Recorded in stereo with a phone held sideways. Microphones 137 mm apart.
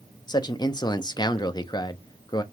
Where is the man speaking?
30° left (ahead or behind), 0.7 m.